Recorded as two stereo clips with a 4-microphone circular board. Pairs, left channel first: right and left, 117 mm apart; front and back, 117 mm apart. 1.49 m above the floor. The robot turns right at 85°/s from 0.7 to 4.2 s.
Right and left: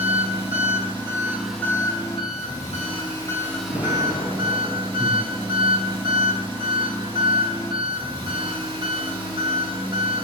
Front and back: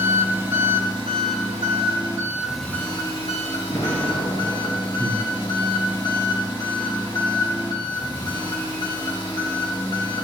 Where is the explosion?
65° right, 2.5 m; by 4.9 s 25° right, 2.5 m.